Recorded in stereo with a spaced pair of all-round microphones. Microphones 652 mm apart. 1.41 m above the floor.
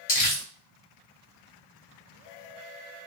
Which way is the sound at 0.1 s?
45° left (ahead or behind).